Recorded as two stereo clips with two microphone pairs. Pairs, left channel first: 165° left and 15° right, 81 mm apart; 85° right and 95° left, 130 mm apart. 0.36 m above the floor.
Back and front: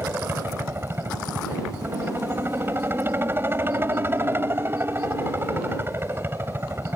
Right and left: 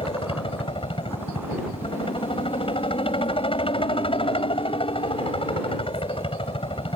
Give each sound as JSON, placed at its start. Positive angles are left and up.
{"t": 0.0, "sound": "a helicopter", "azimuth_deg": -65}